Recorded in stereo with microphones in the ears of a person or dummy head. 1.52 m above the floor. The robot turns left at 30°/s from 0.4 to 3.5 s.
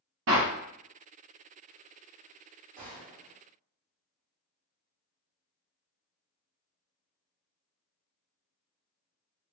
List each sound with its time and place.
0.3 s a clap: 70° right (ahead or behind), 0.7 m; by 0.5 s 65° right (ahead or behind), 0.7 m
2.8 s a gunshot: 40° right (ahead or behind), 1.5 m